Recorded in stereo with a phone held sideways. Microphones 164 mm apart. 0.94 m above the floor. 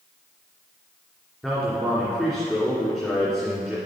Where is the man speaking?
5° right (ahead or behind), 2.5 m.